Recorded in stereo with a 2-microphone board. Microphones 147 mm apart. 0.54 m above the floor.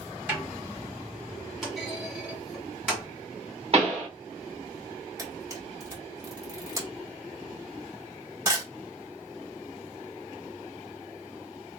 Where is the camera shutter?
20° right (ahead or behind), 1.3 m.